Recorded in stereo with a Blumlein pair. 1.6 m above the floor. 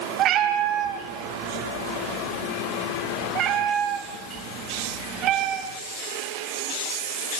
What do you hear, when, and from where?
0.2 s a cat meowing: 35° right, 4 m